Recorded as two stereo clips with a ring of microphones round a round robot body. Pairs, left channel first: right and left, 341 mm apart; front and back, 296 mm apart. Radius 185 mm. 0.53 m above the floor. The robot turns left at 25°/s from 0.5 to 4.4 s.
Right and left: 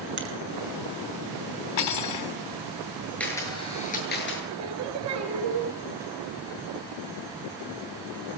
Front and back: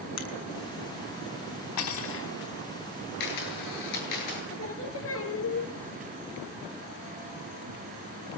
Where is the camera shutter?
5° right, 9 m; by 4.4 s 35° right, 9 m.